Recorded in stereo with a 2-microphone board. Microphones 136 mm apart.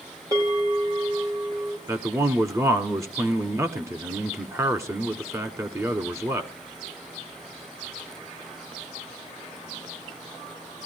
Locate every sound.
0.3 s a bell: 25° right (ahead or behind), 5.5 m
1.9 s a man speaking: 20° right (ahead or behind), 1.1 m